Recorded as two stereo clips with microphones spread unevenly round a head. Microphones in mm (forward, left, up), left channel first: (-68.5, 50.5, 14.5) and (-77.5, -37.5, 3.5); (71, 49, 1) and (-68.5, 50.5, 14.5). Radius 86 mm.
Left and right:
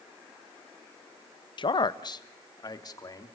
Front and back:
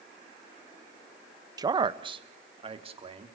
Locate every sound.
1.6 s a man speaking: 115° left, 1.0 m; by 3.3 s 130° left, 3 m